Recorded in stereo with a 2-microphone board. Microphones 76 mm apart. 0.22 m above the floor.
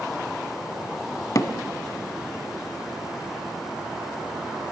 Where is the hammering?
50° left (ahead or behind), 1.0 m.